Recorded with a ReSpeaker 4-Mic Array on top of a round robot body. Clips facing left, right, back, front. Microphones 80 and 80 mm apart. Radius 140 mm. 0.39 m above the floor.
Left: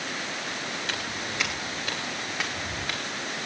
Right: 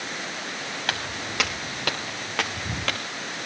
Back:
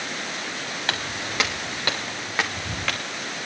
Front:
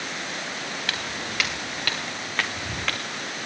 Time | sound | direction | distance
0.9 | footsteps | 120° right | 3.5 m